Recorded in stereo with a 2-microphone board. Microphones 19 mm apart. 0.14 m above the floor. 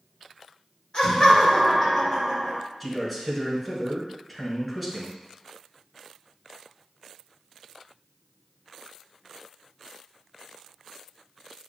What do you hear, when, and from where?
0.9 s laughter: 40° left (ahead or behind), 2.0 m; by 2.6 s 15° left (ahead or behind), 1.9 m
2.8 s a man speaking: centre (ahead or behind), 1.7 m